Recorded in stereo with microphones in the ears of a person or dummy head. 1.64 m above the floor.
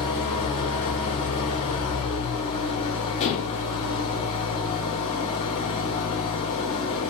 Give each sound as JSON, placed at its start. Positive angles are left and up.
{"t": 0.0, "sound": "an engine running", "side_deg": 25, "distance_m": 1.8}
{"t": 3.2, "sound": "dishes clattering", "side_deg": 40, "distance_m": 1.5}